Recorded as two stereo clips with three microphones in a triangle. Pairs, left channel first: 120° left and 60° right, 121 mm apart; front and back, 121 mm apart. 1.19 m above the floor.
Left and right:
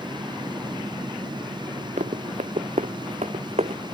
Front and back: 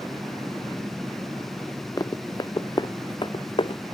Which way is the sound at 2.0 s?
60° right.